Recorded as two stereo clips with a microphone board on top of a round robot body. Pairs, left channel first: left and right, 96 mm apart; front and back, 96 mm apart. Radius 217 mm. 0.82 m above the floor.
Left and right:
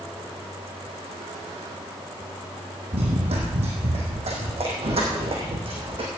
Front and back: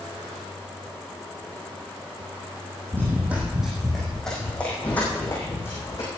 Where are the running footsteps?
110° right, 2 m; by 6.1 s 65° right, 3.5 m.